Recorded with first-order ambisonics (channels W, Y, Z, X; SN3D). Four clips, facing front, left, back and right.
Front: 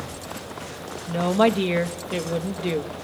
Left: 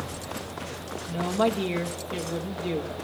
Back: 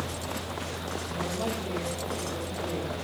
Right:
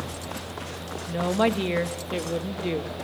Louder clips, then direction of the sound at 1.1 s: Right 2 dB, front 14 dB; 20° right.